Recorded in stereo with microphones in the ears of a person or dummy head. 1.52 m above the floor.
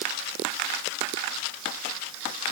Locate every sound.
Only background noise.